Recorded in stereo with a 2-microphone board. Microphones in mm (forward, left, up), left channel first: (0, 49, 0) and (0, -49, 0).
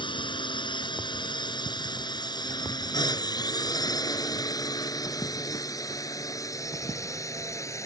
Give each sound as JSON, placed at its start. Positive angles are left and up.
{"t": 0.0, "sound": "a drone", "side_deg": 55}